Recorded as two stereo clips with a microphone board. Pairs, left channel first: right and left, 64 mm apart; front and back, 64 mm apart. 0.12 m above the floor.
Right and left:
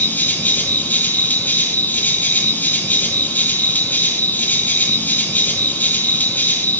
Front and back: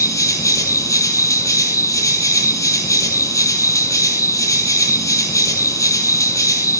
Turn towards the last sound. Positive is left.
turn(degrees=-30)